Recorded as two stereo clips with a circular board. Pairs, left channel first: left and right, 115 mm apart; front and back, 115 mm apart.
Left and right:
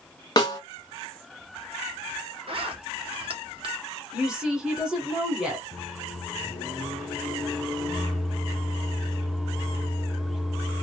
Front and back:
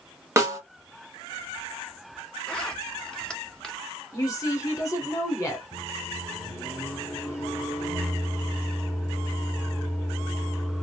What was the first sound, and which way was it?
A snare drum, 125° left.